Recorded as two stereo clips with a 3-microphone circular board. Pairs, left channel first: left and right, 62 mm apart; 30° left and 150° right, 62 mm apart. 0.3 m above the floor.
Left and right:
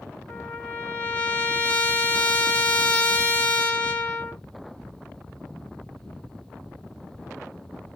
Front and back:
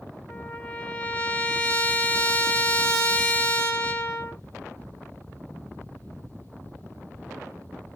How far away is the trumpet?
About 0.8 m.